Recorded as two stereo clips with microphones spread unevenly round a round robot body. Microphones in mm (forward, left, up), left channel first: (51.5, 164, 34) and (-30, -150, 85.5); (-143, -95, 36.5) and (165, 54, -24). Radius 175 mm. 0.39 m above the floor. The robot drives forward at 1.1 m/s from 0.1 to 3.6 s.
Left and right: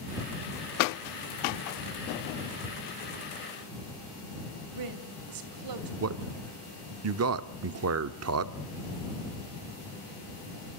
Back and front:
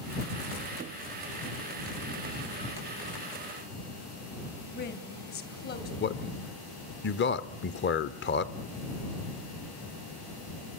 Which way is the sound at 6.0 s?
100° right.